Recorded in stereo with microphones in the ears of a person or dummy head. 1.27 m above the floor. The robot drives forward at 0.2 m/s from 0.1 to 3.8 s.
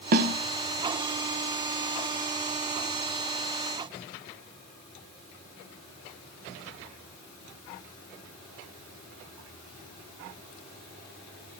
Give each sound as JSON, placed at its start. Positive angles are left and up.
{"t": 0.1, "sound": "a snare drum", "side_deg": -50, "distance_m": 0.7}